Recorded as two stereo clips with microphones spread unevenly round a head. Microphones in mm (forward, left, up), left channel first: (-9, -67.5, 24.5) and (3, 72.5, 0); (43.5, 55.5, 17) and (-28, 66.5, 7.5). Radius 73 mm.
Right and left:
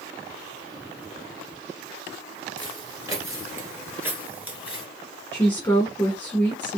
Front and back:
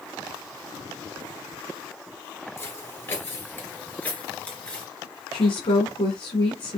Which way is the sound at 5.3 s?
15° right.